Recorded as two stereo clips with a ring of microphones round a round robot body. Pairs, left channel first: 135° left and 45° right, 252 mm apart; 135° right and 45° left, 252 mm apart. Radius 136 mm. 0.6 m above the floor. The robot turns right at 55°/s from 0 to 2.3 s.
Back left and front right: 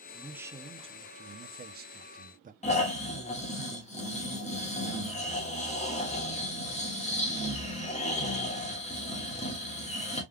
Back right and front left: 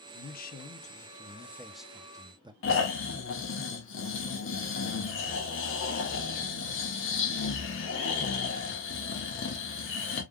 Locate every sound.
0.1 s a man speaking: 135° right, 0.6 m; by 2.5 s 15° right, 0.6 m
2.6 s snoring: 165° right, 1.4 m